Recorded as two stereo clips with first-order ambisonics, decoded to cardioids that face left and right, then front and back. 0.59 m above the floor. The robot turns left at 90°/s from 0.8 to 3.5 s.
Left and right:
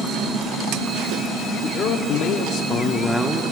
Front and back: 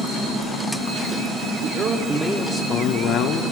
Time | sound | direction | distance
1.6 | a man speaking | 145° left | 1.0 m